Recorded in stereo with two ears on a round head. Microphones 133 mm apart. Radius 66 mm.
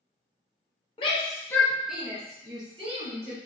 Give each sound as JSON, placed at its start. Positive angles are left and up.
{"t": 1.0, "sound": "a shout", "side_deg": 40, "distance_m": 0.7}